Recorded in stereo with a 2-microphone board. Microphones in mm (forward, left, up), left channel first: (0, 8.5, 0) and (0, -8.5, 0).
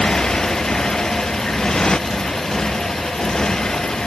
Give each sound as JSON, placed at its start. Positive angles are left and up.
{"t": 0.0, "sound": "a motorcycle", "side_deg": 50}